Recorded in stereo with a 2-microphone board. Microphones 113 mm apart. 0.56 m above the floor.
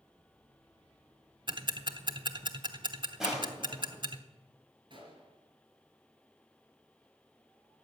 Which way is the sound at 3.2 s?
5° right (ahead or behind).